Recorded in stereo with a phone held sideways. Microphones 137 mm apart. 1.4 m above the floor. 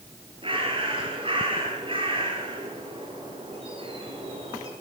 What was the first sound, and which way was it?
A bird, 40° right (ahead or behind).